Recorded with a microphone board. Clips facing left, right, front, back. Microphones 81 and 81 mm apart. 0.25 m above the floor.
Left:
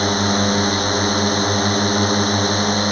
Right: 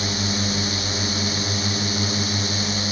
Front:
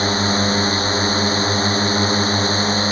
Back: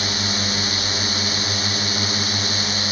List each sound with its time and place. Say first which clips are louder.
0.0 s a drone: left 8 dB, front 8 dB; 55° left